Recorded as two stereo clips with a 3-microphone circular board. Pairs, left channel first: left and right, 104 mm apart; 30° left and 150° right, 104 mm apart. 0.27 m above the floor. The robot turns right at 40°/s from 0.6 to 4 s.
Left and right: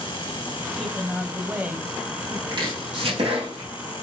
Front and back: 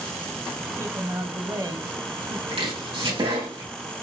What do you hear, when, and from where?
0.8 s a woman speaking: 165° left, 1.1 m; by 2.4 s 130° right, 1.1 m
2.5 s chopping: 140° right, 4.5 m; by 3.7 s 90° right, 4.5 m